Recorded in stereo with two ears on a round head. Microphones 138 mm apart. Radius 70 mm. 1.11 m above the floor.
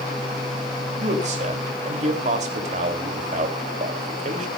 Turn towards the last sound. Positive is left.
turn(degrees=-50)  # may be behind; listen again after turning